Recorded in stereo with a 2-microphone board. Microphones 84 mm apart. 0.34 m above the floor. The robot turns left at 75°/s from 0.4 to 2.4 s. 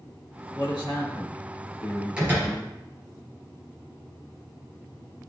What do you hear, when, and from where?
0.6 s a man speaking: 105° left, 4.5 m; by 2.7 s 35° right, 4.5 m
2.2 s a door slam: 10° right (ahead or behind), 4 m; by 2.6 s 30° right (ahead or behind), 4 m